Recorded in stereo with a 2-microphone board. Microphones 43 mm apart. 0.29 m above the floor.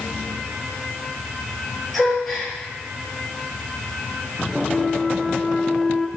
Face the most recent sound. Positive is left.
turn(degrees=5)  # may be behind; listen again after turning